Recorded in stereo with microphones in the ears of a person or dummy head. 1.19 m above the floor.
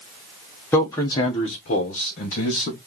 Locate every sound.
0.7 s a man speaking: 10° left (ahead or behind), 0.9 m; by 2.8 s 45° left (ahead or behind), 1.6 m